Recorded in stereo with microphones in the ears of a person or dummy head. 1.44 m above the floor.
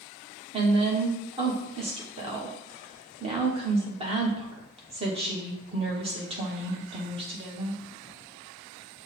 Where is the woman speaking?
30° right (ahead or behind), 1.0 m.